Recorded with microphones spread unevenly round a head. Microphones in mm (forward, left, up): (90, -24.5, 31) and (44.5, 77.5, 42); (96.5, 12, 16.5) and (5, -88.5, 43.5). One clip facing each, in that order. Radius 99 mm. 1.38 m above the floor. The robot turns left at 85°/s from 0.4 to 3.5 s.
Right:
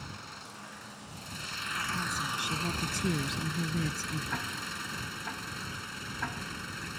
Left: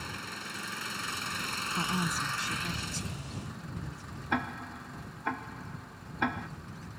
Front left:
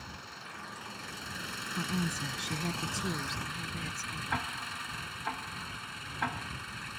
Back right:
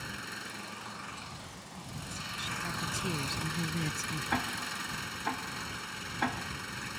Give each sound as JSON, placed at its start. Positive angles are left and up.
{"t": 0.0, "sound": "an engine running", "azimuth_deg": 175}
{"t": 1.8, "sound": "a woman speaking", "azimuth_deg": 70}
{"t": 4.3, "sound": "ticking", "azimuth_deg": 165}